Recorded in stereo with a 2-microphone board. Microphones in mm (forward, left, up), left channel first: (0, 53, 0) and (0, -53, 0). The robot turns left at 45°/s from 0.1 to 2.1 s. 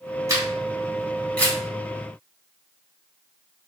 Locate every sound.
0.3 s a camera shutter: 30° right (ahead or behind), 1.9 m; by 1.6 s 20° left (ahead or behind), 1.9 m